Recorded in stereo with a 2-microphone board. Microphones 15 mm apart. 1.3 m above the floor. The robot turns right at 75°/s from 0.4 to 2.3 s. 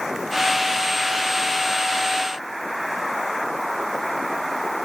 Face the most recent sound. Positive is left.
No sound to turn to.